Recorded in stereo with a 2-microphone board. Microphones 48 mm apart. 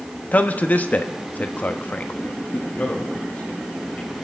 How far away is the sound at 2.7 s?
About 3.5 m.